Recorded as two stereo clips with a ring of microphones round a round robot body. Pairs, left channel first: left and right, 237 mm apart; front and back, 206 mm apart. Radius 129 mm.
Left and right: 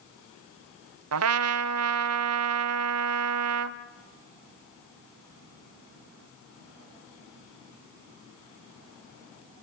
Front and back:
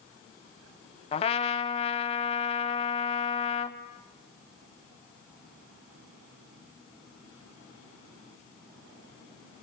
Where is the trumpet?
65° right, 0.7 m.